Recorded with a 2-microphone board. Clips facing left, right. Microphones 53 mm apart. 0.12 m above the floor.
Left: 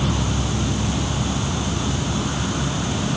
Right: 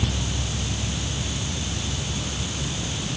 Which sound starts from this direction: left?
An insect, at 0.0 s.